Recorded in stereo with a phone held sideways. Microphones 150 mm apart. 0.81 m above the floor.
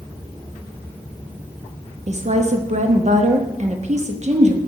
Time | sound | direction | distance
2.1 | a woman speaking | 50° right (ahead or behind) | 0.7 m